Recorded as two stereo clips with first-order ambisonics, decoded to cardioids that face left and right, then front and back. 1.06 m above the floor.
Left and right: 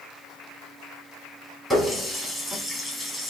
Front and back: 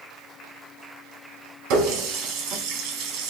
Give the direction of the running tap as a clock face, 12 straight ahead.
6 o'clock.